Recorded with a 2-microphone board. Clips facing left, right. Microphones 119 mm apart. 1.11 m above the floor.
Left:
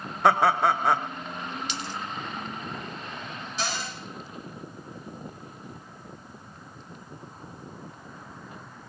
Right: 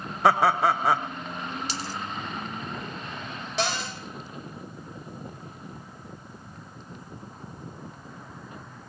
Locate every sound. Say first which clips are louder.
0.2 s laughter: even; centre (ahead or behind), 0.9 m
1.7 s a dropped coin: right 1 dB; 35° right (ahead or behind), 0.9 m
3.6 s a cupboard door: right 4 dB; 80° right, 3.5 m